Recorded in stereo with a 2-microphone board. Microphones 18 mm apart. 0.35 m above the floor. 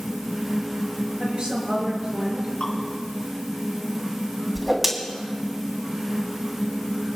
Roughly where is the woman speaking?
Right.